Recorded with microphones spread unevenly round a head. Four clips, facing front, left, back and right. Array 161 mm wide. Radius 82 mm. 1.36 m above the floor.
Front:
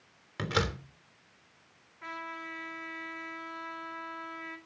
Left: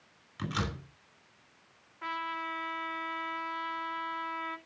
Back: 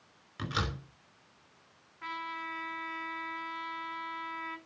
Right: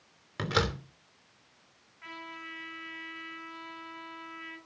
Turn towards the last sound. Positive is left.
turn(degrees=85)